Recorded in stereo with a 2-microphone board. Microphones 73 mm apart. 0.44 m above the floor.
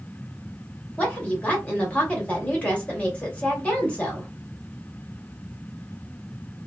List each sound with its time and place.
1.0 s a woman speaking: 15° left (ahead or behind), 1.2 m